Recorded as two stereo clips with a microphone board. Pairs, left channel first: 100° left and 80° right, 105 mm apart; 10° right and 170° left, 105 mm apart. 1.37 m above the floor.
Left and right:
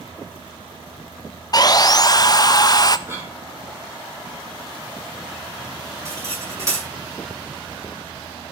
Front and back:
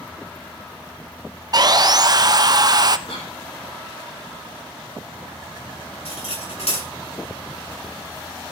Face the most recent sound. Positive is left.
turn(degrees=-15)